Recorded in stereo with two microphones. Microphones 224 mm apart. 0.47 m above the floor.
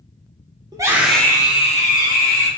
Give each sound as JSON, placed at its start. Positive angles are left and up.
{"t": 0.7, "sound": "a scream", "side_deg": -20, "distance_m": 1.0}